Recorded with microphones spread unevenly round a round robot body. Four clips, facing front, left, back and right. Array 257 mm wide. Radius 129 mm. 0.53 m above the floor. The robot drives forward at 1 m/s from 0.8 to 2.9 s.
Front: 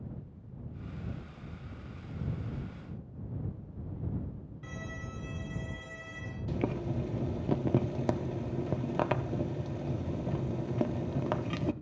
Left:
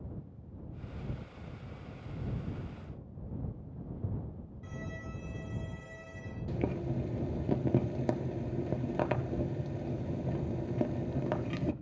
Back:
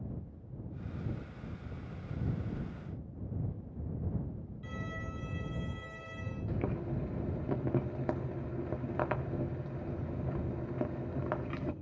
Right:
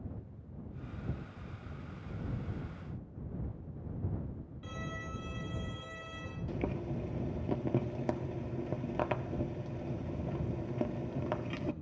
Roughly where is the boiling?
Ahead left.